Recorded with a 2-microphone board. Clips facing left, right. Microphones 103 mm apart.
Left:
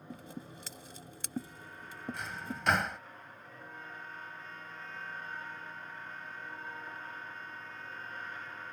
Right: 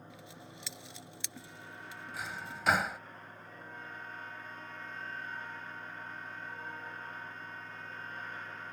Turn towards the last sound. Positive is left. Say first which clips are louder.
# left 1 dB
turn(degrees=0)  # may be behind; listen again after turning